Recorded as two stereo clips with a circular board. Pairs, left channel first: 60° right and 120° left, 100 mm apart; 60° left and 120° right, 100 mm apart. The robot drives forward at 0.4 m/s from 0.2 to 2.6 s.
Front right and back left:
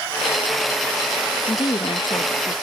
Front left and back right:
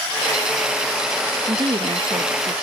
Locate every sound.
1.5 s a woman speaking: 85° right; by 2.5 s 100° right